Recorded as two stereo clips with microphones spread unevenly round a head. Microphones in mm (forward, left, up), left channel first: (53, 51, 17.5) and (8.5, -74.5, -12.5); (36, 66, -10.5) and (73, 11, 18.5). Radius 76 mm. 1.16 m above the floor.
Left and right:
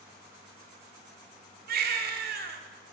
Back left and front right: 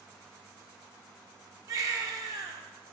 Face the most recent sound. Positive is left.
turn(degrees=-100)